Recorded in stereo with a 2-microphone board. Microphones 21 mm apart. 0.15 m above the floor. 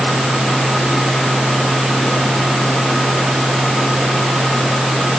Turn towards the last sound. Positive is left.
No sound to turn to.